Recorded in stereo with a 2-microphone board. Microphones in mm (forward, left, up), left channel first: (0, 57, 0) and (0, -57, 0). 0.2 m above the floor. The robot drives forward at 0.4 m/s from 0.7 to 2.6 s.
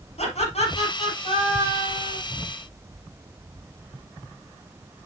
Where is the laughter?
75° left (ahead or behind), 4.5 m; by 2.2 s 70° left (ahead or behind), 5 m.